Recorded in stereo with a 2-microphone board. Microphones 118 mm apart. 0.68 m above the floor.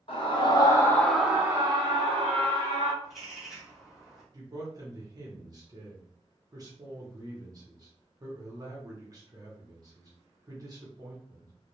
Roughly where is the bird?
Centre.